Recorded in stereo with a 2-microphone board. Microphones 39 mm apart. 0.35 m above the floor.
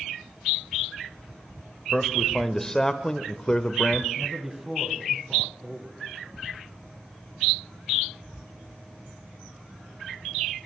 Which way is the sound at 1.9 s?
10° left (ahead or behind).